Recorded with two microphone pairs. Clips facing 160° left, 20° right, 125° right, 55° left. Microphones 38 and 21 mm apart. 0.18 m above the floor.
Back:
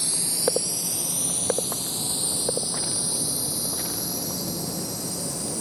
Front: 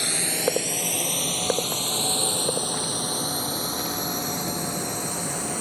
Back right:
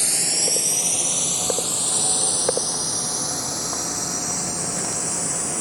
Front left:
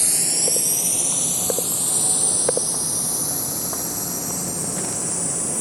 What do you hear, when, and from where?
0.0 s a drone: 50° right; by 5.6 s 60° right